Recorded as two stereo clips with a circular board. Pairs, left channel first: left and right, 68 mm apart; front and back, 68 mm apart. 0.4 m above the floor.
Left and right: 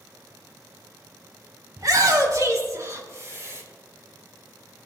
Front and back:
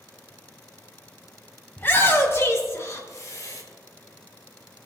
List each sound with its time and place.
1.8 s a shout: 60° right, 2.5 m; by 3.6 s 40° right, 3.5 m